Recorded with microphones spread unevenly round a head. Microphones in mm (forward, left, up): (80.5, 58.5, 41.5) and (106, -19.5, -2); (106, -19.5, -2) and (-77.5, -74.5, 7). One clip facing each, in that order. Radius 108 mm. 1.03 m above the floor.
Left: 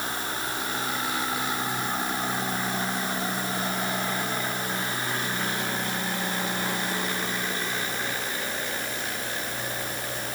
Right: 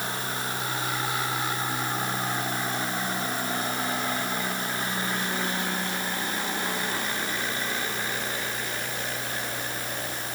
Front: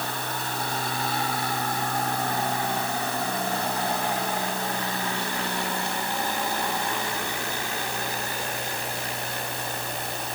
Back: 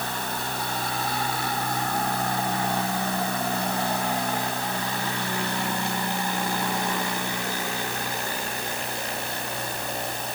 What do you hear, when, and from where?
Only background noise.